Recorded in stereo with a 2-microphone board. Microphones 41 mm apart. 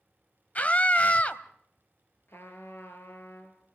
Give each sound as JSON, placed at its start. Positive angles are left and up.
{"t": 0.6, "sound": "a scream", "side_deg": 40, "distance_m": 1.3}
{"t": 2.3, "sound": "a trumpet", "side_deg": 75, "distance_m": 4.0}